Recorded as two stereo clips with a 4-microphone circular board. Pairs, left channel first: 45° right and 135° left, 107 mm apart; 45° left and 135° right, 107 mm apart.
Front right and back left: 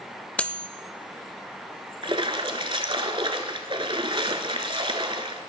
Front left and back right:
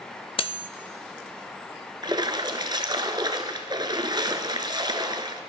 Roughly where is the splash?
Behind.